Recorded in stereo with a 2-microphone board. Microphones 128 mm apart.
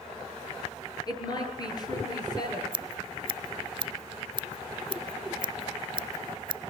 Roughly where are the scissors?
Right.